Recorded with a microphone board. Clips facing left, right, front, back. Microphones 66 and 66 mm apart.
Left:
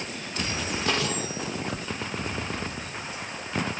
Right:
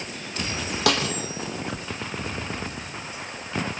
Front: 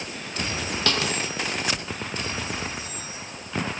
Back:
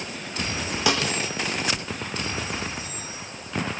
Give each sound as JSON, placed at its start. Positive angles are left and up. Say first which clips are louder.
{"t": 0.9, "sound": "a snare drum", "louder": "right 5 dB, back 2 dB", "azimuth_deg": -100, "distance_m": 5.5}